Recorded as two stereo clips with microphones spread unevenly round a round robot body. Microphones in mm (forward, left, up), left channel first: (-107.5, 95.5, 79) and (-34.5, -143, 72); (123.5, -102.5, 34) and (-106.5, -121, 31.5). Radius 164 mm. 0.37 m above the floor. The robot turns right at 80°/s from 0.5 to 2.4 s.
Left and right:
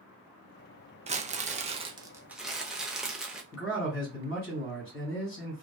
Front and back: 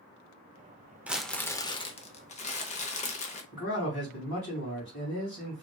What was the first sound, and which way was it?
Crumpling, 100° right.